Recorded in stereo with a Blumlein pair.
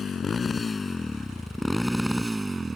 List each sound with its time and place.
0.0 s a motorcycle: 20° left; by 2.8 s 10° right